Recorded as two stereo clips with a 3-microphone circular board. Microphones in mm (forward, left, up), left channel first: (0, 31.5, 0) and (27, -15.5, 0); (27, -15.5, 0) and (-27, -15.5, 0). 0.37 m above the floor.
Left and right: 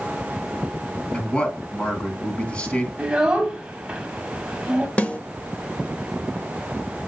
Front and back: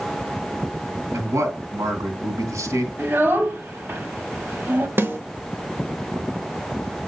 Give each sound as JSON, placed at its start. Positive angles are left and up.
{"t": 1.1, "sound": "a man speaking", "azimuth_deg": -170, "distance_m": 3.0}
{"t": 3.0, "sound": "a child speaking", "azimuth_deg": -130, "distance_m": 1.5}
{"t": 5.0, "sound": "a snare drum", "azimuth_deg": 170, "distance_m": 1.0}